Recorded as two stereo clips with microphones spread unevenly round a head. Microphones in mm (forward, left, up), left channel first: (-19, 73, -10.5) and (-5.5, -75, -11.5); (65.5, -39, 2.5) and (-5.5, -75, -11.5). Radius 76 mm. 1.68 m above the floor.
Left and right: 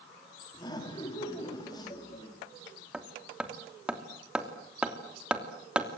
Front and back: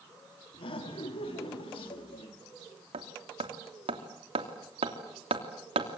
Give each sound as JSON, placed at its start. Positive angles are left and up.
{"t": 0.5, "sound": "laughter", "azimuth_deg": 30, "distance_m": 5.0}
{"t": 2.9, "sound": "hammering", "azimuth_deg": -170, "distance_m": 2.5}